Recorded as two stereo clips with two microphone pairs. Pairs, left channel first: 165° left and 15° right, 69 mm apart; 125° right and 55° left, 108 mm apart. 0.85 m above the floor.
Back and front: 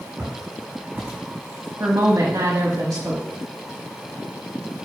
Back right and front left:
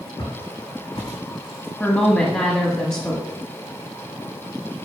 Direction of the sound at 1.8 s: 50° right.